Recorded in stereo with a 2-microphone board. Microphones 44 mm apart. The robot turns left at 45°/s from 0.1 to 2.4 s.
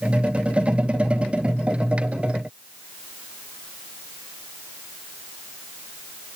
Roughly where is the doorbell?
I don't hear a doorbell.